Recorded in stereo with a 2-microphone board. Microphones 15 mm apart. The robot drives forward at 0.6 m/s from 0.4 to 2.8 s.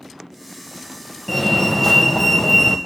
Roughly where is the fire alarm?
Centre.